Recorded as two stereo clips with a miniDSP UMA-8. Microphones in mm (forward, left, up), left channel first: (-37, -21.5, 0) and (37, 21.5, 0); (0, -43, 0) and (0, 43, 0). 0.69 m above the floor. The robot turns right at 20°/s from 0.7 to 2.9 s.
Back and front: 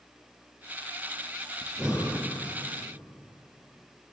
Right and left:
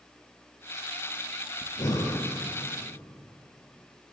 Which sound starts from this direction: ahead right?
Breathing, at 1.6 s.